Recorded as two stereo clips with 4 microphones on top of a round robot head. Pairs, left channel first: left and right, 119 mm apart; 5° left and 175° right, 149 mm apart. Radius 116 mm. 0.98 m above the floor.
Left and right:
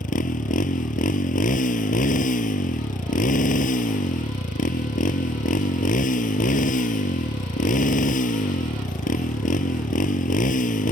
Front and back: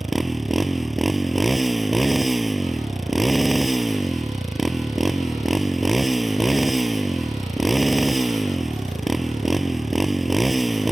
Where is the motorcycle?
95° left.